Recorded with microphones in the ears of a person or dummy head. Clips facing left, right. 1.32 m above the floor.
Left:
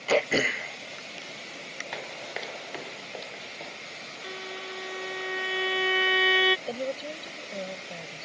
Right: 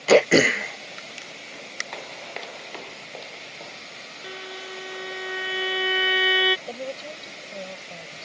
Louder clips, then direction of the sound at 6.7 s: Left 1 dB; 10° left (ahead or behind).